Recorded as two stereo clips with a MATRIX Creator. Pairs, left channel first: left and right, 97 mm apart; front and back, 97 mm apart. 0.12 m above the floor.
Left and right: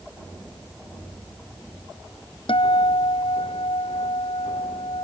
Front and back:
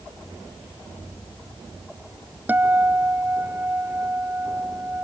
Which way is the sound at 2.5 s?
110° left.